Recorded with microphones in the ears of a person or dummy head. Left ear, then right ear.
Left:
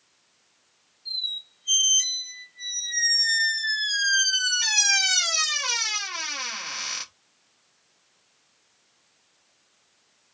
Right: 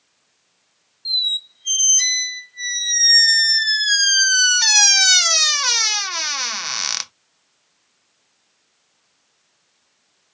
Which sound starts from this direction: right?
A squeak, at 1.1 s.